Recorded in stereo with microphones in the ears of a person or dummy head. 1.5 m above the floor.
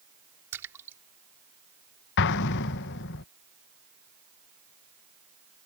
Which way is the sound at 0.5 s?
10° right (ahead or behind).